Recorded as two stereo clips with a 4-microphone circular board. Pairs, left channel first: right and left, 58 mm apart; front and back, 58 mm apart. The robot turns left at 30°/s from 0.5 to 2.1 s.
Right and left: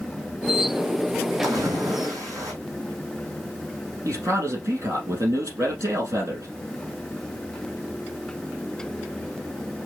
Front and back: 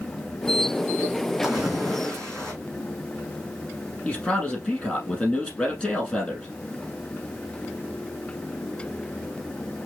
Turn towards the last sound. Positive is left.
turn(degrees=65)